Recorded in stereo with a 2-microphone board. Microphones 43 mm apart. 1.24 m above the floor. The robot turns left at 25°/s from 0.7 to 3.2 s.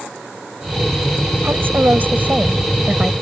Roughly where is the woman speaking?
Behind right.